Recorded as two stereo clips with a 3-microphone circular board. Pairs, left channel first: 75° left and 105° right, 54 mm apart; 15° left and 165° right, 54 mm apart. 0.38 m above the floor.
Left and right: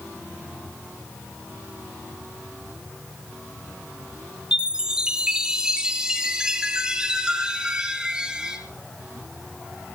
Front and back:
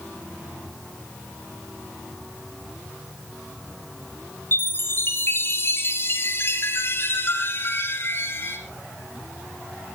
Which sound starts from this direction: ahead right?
A chime, at 4.5 s.